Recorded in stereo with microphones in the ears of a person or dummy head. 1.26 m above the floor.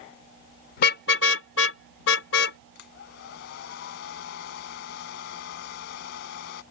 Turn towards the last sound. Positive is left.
turn(degrees=65)  # may be behind; listen again after turning